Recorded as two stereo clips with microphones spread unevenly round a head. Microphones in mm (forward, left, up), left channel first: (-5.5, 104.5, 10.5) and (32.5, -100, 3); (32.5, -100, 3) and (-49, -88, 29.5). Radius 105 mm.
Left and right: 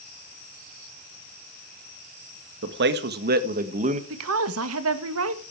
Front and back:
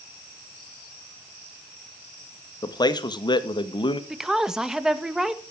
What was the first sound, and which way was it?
A man speaking, 45° right.